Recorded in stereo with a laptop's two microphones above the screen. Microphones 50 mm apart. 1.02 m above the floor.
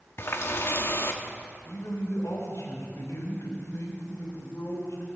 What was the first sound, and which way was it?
A running tap, 50° left (ahead or behind).